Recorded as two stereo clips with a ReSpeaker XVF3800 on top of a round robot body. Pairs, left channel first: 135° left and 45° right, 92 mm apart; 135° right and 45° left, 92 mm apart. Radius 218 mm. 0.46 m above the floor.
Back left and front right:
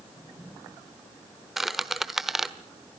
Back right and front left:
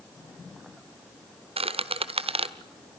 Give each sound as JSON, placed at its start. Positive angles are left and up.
{"t": 1.6, "sound": "a squeak", "azimuth_deg": 40, "distance_m": 1.2}